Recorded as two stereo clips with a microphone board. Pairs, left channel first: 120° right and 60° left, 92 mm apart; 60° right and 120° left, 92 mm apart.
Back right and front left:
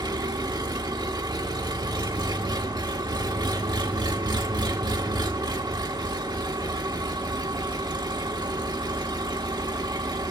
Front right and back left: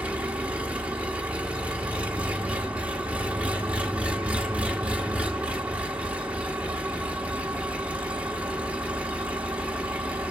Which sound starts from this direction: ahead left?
An engine running, at 0.0 s.